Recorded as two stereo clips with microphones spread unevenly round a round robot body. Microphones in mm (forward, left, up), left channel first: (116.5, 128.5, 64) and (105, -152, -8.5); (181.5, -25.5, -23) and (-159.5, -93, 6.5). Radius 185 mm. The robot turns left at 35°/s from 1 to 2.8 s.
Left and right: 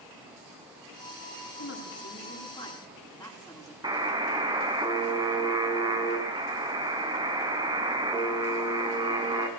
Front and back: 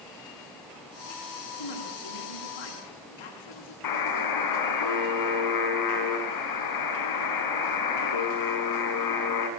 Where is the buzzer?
15° right, 3.5 m.